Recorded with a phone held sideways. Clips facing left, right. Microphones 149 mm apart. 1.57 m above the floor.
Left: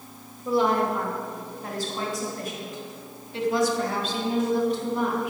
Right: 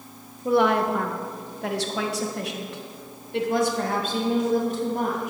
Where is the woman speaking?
65° right (ahead or behind), 1.4 m; by 5.3 s 45° right (ahead or behind), 2.5 m.